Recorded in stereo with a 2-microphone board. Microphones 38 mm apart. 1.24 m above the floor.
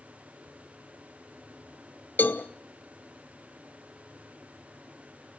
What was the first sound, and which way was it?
A cowbell, 55° left (ahead or behind).